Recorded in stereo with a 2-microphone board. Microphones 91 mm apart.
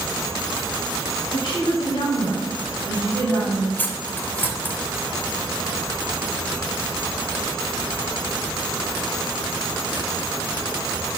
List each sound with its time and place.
1.3 s a woman speaking: 65° left (ahead or behind), 2.5 m; by 3.7 s 20° left (ahead or behind), 3 m
3.8 s cutlery clinking: 20° left (ahead or behind), 0.6 m